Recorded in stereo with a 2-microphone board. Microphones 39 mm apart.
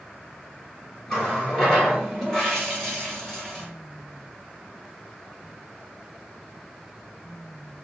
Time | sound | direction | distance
1.1 | a running tap | 10° left (ahead or behind) | 1.5 m